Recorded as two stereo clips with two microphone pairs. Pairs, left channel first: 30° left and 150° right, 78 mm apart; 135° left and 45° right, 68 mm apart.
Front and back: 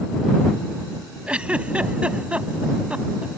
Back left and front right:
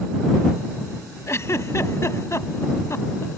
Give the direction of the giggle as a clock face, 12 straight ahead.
7 o'clock.